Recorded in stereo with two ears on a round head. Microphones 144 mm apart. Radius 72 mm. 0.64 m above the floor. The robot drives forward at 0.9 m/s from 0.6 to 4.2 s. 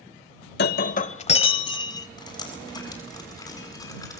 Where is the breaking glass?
70° left (ahead or behind), 0.8 m; by 2.1 s 25° left (ahead or behind), 1.7 m.